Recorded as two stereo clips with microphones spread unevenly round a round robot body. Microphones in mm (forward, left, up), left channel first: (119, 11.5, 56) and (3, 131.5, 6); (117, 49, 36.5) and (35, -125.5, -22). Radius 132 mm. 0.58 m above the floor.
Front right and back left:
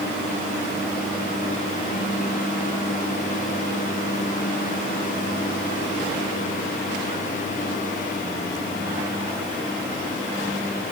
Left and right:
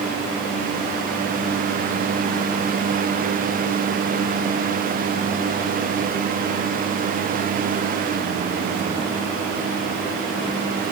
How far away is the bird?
No bird in this recording.